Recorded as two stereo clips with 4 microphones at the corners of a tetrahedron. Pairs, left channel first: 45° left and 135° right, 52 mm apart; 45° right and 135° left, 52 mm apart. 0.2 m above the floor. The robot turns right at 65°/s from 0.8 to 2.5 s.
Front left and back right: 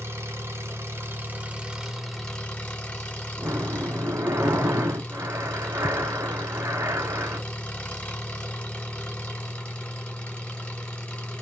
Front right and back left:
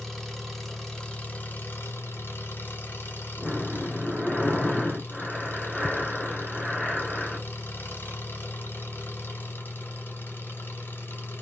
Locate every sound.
0.0 s an engine running: 120° right, 1.5 m; by 11.4 s 10° right, 1.5 m
3.4 s breathing: 140° right, 0.7 m